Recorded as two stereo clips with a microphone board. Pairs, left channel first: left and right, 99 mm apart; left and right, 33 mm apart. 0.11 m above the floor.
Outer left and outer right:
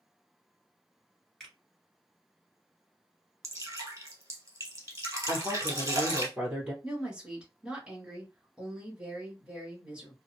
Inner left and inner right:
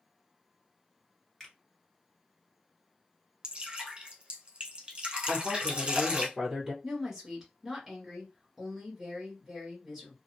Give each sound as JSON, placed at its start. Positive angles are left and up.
{"t": 1.4, "sound": "a finger snap", "side_deg": 5, "distance_m": 1.5}
{"t": 3.4, "sound": "dripping", "side_deg": -30, "distance_m": 1.3}
{"t": 5.3, "sound": "a woman speaking", "side_deg": -15, "distance_m": 1.3}
{"t": 6.8, "sound": "a woman speaking", "side_deg": -10, "distance_m": 1.6}